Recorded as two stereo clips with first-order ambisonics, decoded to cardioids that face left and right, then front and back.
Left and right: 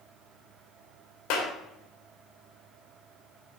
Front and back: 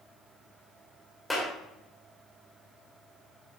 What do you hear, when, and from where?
1.3 s a clap: 85° left, 2 m